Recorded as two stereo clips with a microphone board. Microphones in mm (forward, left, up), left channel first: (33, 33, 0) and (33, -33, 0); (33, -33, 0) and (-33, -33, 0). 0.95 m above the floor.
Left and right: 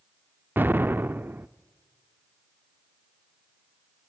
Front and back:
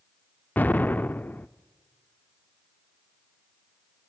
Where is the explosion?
50° right, 0.6 m.